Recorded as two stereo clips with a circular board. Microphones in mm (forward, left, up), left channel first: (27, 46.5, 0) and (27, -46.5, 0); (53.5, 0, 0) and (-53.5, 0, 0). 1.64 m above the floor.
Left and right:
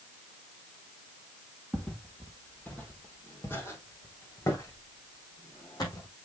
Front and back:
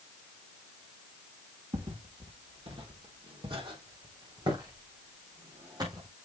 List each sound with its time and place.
1.7 s footsteps: 170° left, 3.5 m; by 6.1 s 130° left, 5 m